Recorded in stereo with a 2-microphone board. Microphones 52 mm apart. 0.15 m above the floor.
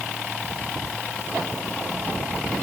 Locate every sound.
Only background noise.